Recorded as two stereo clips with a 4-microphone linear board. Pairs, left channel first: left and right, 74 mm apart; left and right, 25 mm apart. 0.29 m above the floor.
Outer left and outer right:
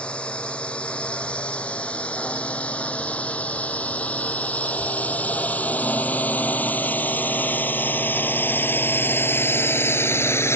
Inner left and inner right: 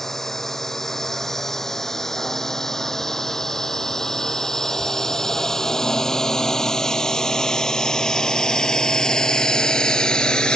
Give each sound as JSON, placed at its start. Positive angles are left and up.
{"t": 0.0, "sound": "a drone", "side_deg": 15}